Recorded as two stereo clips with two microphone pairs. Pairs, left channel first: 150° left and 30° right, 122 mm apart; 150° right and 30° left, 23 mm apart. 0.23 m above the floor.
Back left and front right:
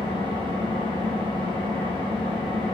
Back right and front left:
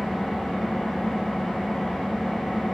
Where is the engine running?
80° right, 6.5 m.